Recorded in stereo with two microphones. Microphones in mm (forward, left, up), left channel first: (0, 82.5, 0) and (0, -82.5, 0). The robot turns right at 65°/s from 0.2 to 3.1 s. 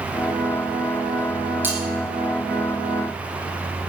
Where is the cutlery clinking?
10° right (ahead or behind), 5.5 m; by 1.8 s 20° right (ahead or behind), 5.5 m.